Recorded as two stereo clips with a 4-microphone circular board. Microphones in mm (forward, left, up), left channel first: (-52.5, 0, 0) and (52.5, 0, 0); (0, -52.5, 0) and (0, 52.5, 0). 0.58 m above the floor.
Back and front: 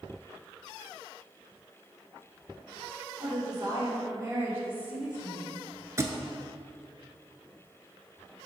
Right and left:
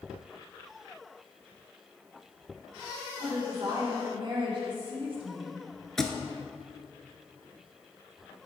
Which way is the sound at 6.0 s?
10° right.